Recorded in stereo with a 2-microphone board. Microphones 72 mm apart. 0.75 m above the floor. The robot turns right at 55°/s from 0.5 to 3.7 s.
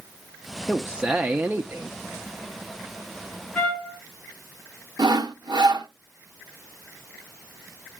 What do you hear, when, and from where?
0.7 s a man speaking: 175° right, 0.6 m; by 2.0 s 100° right, 0.6 m
3.5 s a trumpet: 25° left (ahead or behind), 1.9 m; by 4.0 s 15° left (ahead or behind), 1.9 m
5.0 s sawing: 80° right, 1.1 m